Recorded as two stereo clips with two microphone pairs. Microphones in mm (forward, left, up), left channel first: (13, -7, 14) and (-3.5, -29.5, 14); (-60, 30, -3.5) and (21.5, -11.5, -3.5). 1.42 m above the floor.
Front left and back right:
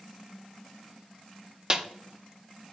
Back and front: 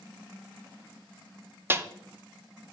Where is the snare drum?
80° right, 0.6 m.